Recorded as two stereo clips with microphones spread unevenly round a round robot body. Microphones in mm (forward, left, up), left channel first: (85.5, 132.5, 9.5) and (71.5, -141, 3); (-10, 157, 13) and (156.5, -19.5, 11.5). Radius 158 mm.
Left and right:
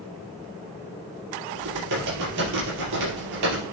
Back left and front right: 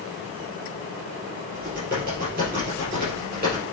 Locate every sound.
1.5 s typing on a keyboard: 110° right, 5 m